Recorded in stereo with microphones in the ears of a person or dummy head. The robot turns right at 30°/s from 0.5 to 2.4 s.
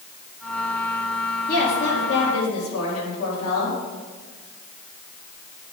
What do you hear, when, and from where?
1.5 s a woman speaking: 50° left (ahead or behind), 3 m; by 3.8 s 80° left, 3 m